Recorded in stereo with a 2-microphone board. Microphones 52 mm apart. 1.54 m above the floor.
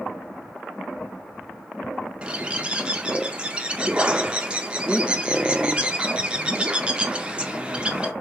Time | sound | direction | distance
2.2 | a bird | 20° right (ahead or behind) | 0.7 m